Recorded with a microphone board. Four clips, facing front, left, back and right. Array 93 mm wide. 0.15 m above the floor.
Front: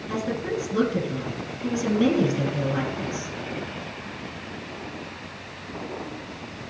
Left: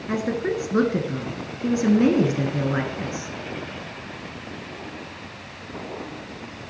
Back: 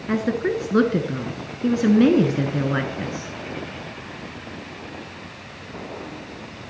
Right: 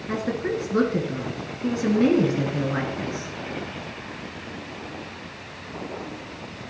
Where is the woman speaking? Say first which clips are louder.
Left 2 dB, back 6 dB; 170° left, 1.5 m.